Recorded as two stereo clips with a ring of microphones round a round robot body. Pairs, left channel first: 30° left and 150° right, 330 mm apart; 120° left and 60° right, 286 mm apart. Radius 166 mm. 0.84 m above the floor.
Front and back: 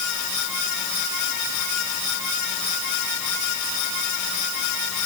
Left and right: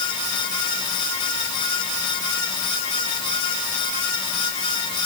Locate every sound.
Only background noise.